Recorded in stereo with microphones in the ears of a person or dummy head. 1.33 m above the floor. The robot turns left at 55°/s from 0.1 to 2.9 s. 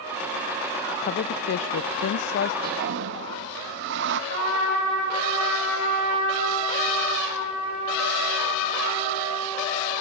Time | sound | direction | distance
1.0 | a woman speaking | 135° left | 0.5 m
2.6 | a toilet flushing | 50° right (ahead or behind) | 0.7 m
4.3 | a trumpet | 80° right | 5.5 m